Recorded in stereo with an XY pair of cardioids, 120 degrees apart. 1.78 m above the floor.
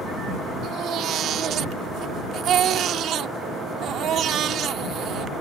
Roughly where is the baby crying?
Ahead right.